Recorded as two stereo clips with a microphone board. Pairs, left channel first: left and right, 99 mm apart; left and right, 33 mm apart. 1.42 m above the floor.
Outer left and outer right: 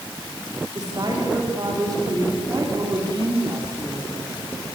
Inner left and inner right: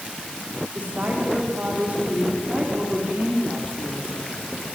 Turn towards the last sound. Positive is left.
turn(degrees=-40)  # may be behind; listen again after turning